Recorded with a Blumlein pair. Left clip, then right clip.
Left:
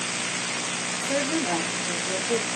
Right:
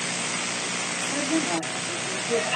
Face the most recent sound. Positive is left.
turn(degrees=20)